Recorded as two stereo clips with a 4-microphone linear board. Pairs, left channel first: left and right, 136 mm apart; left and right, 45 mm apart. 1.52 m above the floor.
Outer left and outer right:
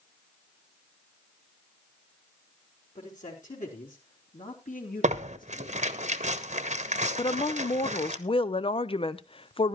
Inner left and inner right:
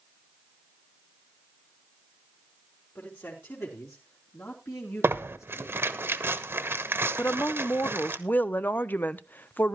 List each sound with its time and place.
3.0 s a man speaking: 70° left (ahead or behind), 4 m; by 6.0 s 75° left (ahead or behind), 3 m
5.0 s tearing paper: 60° right (ahead or behind), 1.0 m
7.2 s a woman speaking: 40° left (ahead or behind), 0.6 m